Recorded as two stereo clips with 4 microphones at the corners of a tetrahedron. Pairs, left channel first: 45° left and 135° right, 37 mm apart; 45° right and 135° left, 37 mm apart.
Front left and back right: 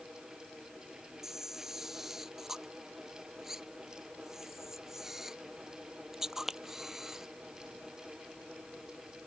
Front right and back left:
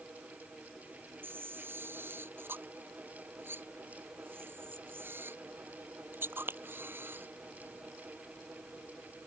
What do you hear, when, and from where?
1.2 s a camera shutter: 145° left